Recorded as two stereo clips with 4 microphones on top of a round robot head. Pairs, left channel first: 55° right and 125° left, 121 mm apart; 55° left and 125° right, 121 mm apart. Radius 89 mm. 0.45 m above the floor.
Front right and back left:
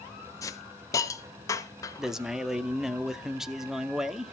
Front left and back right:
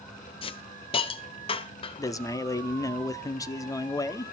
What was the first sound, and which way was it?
A hiss, 10° left.